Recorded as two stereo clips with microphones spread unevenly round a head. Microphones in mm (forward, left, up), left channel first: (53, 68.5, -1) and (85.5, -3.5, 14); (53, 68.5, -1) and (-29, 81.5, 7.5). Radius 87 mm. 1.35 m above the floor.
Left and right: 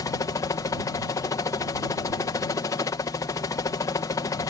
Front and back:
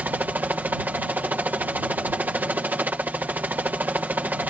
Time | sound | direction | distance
0.0 | a helicopter | 105° left | ?